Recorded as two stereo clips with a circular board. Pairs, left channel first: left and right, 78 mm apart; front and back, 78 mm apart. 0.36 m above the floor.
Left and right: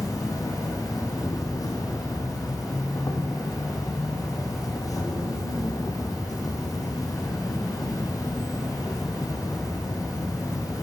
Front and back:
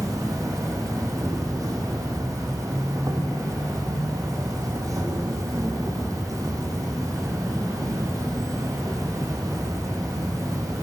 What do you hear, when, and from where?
0.0 s an insect: 135° left, 3 m